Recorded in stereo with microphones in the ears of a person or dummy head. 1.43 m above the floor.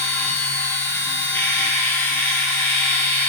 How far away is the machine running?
About 3.5 m.